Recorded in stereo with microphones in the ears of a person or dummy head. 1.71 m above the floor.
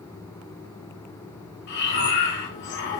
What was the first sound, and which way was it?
Breathing, 55° left (ahead or behind).